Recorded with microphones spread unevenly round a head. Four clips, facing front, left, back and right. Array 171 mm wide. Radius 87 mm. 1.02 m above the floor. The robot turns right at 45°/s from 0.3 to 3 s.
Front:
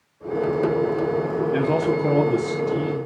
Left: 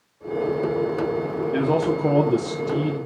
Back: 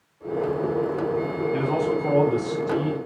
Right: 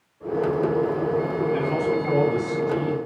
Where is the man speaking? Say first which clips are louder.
Left 5 dB, front 2 dB; 50° left, 2.5 m; by 3.1 s 115° left, 2.5 m.